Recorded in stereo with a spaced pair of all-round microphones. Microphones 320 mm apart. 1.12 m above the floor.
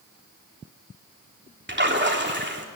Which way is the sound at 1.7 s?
35° right (ahead or behind).